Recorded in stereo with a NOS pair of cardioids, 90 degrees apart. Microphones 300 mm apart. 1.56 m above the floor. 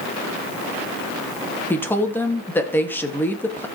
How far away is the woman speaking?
About 3 m.